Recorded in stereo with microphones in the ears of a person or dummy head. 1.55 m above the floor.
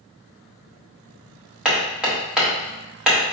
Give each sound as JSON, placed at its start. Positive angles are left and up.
{"t": 1.6, "sound": "hammering", "side_deg": 0, "distance_m": 0.8}